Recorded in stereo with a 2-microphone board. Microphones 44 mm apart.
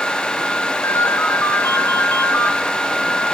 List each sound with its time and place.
0.8 s a ringtone: 70° left (ahead or behind), 2.5 m